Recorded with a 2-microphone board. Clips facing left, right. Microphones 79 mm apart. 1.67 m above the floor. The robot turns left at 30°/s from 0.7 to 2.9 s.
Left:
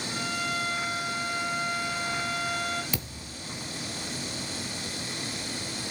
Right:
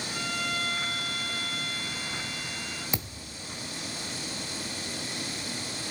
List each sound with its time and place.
0.1 s a violin: 165° left, 2 m; by 2.8 s 105° left, 2 m
2.9 s a thud: 15° right (ahead or behind), 1.8 m